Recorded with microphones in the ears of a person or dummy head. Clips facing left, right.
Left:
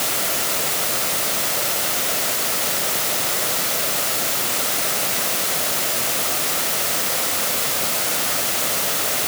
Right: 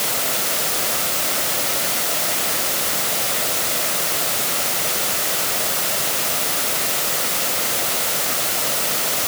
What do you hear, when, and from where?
Only background noise.